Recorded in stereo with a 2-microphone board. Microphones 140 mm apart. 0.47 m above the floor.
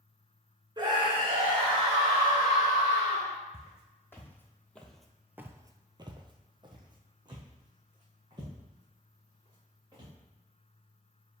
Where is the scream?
30° right (ahead or behind), 0.9 m; by 3.3 s 25° right (ahead or behind), 3 m.